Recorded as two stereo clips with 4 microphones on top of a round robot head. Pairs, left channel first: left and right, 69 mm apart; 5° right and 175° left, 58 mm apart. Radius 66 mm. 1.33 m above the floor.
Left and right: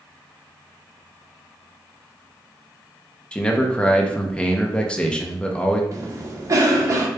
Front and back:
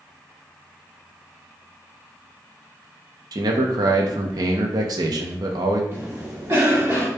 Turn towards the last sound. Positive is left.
turn(degrees=-130)